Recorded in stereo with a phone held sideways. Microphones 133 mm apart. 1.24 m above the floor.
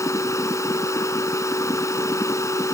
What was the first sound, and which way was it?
A machine running, 20° left (ahead or behind).